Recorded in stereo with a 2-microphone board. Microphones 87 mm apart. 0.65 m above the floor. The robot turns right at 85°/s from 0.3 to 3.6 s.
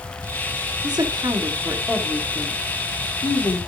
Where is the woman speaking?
105° right, 1.8 m; by 3.6 s 130° left, 1.8 m.